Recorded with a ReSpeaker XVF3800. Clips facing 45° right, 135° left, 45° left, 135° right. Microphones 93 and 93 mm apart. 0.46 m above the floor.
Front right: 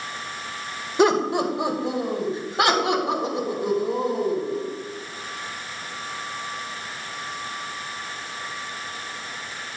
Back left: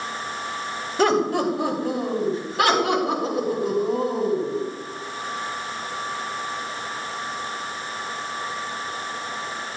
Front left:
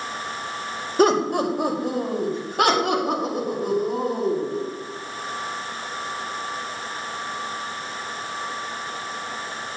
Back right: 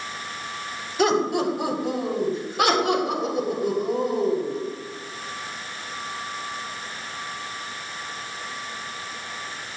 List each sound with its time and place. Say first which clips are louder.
1.0 s laughter: front right 1 dB, front left 2 dB; 20° left, 2 m; by 4.6 s 15° left, 7 m